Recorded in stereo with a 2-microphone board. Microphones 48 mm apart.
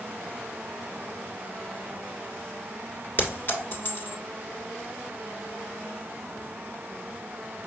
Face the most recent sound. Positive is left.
turn(degrees=45)  # may be behind; listen again after turning